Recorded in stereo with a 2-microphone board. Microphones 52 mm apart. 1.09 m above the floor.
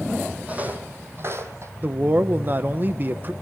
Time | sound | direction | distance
0.5 | footsteps | 30° right (ahead or behind) | 2.5 m
1.8 | a man speaking | 35° right (ahead or behind) | 0.9 m